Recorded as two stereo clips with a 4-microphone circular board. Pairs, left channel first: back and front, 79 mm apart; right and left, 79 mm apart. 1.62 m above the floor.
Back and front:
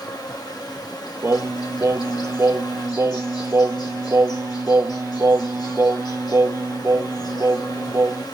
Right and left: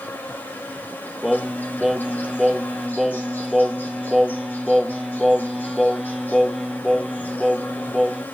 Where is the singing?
5° left, 0.6 m.